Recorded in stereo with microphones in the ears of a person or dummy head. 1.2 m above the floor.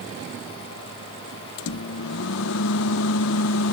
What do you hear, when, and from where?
1.6 s a microwave: 80° left